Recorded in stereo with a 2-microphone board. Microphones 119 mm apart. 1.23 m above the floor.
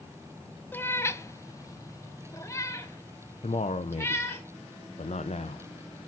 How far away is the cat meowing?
About 0.6 m.